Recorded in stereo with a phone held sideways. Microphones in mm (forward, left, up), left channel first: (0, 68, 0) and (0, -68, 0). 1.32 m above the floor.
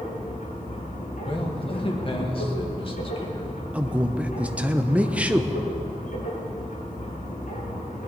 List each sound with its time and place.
0.0 s a machine running: 75° left (ahead or behind), 5 m
1.2 s a man speaking: 40° left (ahead or behind), 1.7 m
3.7 s a man speaking: 10° right (ahead or behind), 0.8 m